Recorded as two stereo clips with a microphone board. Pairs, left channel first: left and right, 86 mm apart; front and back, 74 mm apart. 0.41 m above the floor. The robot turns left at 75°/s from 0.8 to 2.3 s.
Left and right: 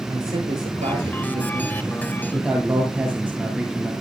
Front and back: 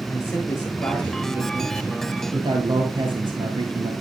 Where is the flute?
No flute in this recording.